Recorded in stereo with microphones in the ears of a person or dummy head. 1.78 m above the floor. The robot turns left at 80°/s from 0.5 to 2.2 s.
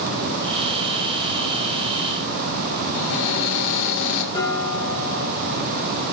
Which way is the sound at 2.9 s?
70° left (ahead or behind).